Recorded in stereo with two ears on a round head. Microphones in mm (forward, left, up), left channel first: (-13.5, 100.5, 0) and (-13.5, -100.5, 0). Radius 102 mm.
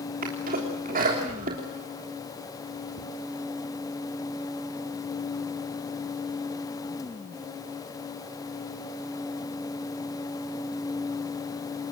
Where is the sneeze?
40° right (ahead or behind), 3 m.